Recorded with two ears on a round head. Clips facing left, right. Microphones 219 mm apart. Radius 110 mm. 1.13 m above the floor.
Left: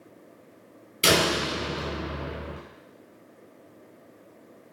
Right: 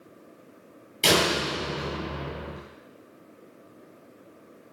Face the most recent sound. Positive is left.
turn(degrees=10)  # may be behind; listen again after turning